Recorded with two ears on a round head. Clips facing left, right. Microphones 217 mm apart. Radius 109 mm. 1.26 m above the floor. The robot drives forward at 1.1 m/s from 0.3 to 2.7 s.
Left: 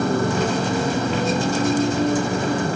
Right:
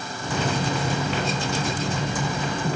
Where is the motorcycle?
50° left (ahead or behind); by 2.8 s 45° left (ahead or behind).